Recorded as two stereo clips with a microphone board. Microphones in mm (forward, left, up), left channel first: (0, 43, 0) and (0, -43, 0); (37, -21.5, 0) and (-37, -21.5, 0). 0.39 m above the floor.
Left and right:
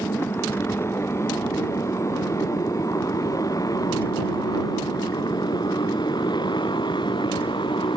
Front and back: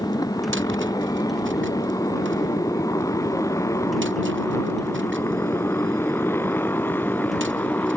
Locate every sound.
0.0 s a motorcycle: 30° left; by 8.0 s 65° left